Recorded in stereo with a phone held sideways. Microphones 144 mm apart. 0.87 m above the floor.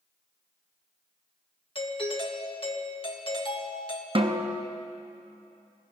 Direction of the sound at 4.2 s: 40° right (ahead or behind).